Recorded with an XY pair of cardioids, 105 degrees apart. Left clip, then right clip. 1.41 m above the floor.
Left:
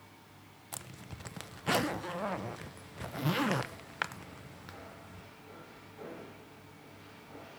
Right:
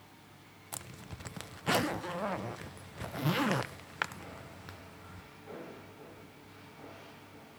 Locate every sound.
0.7 s a zipper: 5° right, 0.7 m